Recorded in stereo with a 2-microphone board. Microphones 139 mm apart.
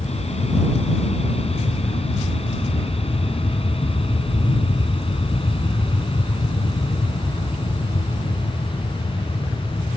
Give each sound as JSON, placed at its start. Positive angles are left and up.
{"t": 0.0, "sound": "an aircraft", "side_deg": 50}